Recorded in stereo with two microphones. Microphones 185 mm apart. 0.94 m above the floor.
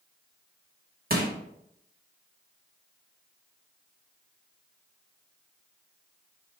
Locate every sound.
1.1 s crushing: 55° right (ahead or behind), 1.9 m